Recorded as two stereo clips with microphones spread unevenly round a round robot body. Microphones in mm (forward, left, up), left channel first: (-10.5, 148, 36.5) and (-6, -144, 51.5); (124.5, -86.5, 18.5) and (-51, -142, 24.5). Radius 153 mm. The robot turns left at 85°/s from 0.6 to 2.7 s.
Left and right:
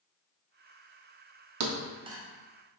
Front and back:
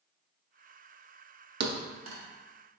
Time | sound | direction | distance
1.6 | a thud | 125° right | 0.6 m